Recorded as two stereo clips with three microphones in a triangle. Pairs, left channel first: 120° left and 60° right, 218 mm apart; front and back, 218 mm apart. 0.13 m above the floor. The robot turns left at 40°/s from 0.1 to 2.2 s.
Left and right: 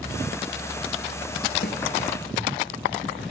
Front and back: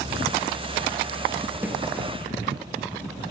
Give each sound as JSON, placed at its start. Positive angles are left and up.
{"t": 1.6, "sound": "a snare drum", "azimuth_deg": 100, "distance_m": 2.5}